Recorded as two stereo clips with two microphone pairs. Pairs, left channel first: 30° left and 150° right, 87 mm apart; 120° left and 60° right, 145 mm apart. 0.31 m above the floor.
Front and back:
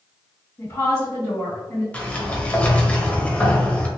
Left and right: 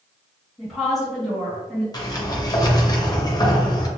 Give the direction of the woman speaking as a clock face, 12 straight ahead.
11 o'clock.